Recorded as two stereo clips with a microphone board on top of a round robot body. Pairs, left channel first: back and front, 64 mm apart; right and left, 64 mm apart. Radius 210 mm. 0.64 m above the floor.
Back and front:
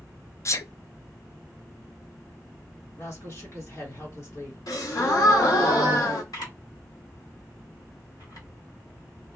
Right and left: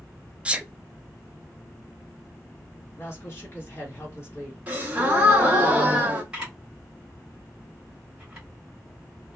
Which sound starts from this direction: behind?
A camera shutter, at 6.3 s.